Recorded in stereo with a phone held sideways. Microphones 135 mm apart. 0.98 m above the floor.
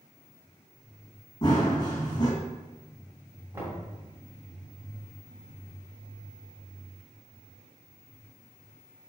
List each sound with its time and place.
1.4 s running footsteps: 30° left (ahead or behind), 2.5 m
3.5 s knocking: 20° right (ahead or behind), 3 m